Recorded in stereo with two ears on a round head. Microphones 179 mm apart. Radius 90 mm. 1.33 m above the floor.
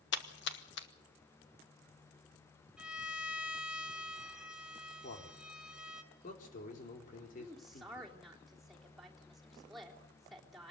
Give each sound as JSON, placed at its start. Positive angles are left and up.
{"t": 0.1, "sound": "a splash", "side_deg": 60, "distance_m": 1.6}
{"t": 2.8, "sound": "a violin", "side_deg": -5, "distance_m": 1.8}
{"t": 5.0, "sound": "a man speaking", "side_deg": 45, "distance_m": 4.0}
{"t": 7.4, "sound": "a woman speaking", "side_deg": 0, "distance_m": 3.5}